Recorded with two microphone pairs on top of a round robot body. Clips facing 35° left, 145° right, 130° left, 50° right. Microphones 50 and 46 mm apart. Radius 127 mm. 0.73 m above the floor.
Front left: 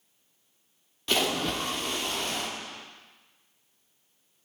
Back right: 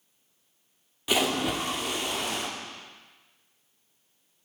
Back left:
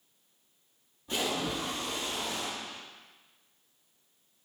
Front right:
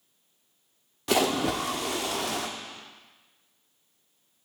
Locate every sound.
1.1 s a splash: 65° right, 1.4 m